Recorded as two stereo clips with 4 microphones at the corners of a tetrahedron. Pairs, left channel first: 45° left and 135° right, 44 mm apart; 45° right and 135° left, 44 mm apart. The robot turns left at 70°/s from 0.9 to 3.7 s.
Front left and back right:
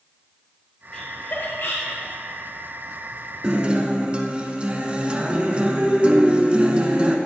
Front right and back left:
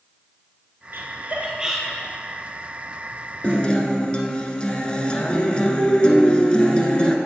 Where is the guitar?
75° right, 1.1 m; by 7.2 s 95° right, 1.1 m.